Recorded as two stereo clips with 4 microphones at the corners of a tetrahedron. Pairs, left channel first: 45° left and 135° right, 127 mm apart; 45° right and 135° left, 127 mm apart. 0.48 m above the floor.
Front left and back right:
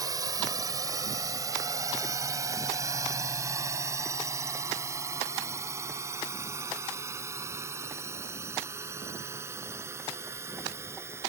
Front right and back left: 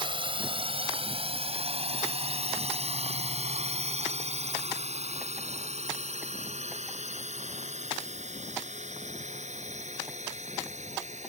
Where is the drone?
170° left; by 11.3 s 155° left.